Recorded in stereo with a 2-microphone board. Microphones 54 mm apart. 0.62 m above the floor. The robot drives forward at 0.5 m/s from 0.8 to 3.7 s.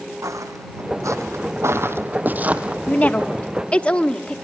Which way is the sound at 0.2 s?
80° right.